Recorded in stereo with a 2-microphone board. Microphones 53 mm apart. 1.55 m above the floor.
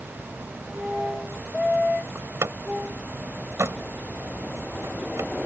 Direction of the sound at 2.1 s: 55° right (ahead or behind).